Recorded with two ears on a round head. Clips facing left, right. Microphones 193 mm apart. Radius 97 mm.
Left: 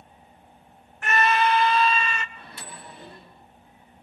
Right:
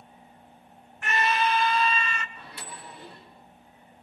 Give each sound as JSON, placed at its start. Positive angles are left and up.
{"t": 1.0, "sound": "a scream", "side_deg": 40, "distance_m": 1.0}
{"t": 2.4, "sound": "a microwave", "side_deg": 40, "distance_m": 6.0}